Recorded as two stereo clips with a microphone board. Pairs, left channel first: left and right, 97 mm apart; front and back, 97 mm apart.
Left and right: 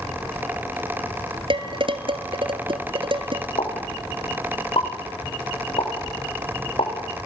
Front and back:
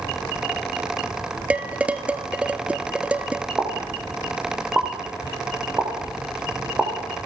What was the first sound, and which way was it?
Dishes clattering, 105° right.